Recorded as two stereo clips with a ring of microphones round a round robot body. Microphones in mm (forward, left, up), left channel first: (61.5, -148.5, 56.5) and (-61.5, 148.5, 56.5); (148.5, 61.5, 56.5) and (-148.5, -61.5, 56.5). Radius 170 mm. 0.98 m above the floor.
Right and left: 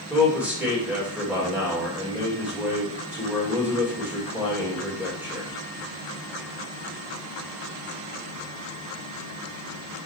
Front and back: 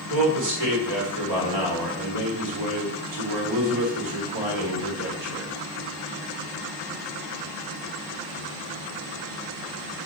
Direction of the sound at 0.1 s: 160° right.